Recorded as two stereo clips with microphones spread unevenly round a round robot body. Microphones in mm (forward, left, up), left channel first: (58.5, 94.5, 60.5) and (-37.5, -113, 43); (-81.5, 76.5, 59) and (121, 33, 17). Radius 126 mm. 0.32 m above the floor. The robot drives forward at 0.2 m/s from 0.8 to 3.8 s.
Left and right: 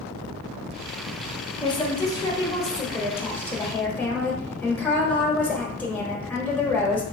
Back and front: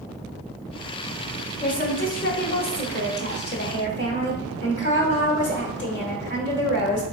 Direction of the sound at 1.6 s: 130° left.